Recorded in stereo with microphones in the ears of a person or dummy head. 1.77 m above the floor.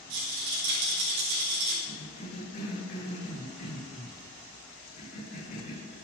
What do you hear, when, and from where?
0.1 s a rattle: 70° right (ahead or behind), 3 m
1.9 s a cough: 50° left (ahead or behind), 2.5 m